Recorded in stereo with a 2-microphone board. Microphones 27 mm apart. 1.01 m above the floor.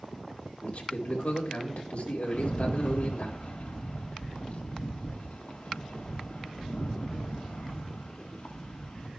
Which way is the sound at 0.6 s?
60° left (ahead or behind).